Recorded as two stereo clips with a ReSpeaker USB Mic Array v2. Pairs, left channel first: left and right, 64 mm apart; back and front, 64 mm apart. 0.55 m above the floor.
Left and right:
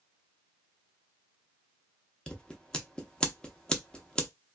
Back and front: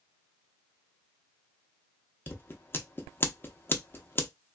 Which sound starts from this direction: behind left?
Scissors, at 2.3 s.